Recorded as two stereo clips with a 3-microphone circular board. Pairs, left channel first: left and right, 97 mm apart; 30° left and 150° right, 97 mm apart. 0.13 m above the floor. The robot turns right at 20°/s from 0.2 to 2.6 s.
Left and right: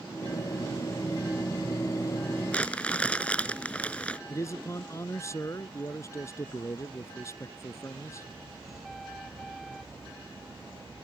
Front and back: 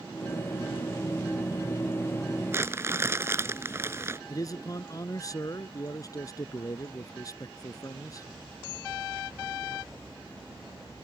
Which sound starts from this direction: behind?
Crumpling, at 2.5 s.